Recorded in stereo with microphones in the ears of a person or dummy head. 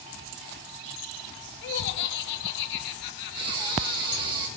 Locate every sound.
1.6 s laughter: 55° left (ahead or behind), 1.1 m
3.4 s breathing: 25° right (ahead or behind), 1.1 m